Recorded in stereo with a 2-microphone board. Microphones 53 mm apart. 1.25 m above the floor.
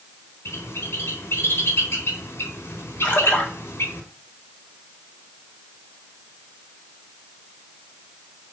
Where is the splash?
25° left (ahead or behind), 4.5 m.